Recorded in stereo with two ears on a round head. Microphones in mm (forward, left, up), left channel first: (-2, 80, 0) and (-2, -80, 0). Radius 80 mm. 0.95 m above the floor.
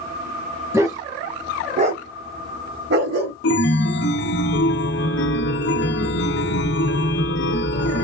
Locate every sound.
0.7 s a dog barking: 15° right (ahead or behind), 1.8 m; by 3.3 s 60° right (ahead or behind), 1.4 m
3.4 s a chime: 65° left (ahead or behind), 0.6 m